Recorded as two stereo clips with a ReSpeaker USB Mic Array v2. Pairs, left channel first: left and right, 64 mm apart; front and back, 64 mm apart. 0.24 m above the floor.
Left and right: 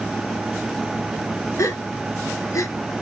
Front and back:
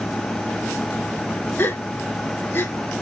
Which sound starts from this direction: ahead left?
A gasp, at 1.6 s.